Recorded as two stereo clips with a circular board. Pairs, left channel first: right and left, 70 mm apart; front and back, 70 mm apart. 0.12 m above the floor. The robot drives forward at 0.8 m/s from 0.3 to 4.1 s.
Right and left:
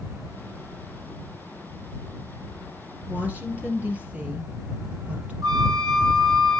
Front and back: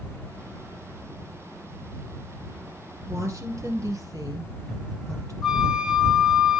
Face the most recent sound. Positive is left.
turn(degrees=95)